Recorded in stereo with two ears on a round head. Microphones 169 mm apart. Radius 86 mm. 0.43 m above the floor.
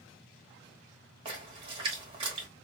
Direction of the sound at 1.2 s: 30° right (ahead or behind).